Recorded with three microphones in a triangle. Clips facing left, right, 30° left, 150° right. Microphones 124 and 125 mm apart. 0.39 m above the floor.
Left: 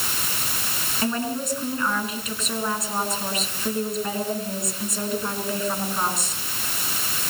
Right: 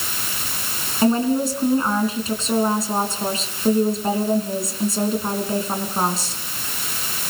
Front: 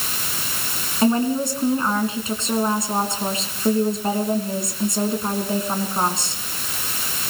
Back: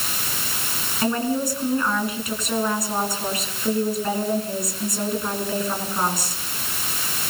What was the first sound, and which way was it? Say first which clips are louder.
A woman speaking: right 9 dB, front 4 dB; 30° right.